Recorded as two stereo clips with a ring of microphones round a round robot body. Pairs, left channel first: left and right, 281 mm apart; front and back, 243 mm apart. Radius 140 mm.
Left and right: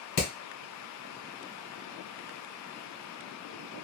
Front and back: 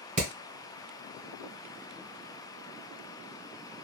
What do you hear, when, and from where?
0.2 s hammering: 120° left, 1.7 m